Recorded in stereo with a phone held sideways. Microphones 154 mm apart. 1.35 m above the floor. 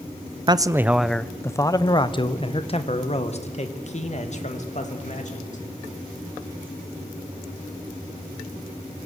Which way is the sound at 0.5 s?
30° right (ahead or behind).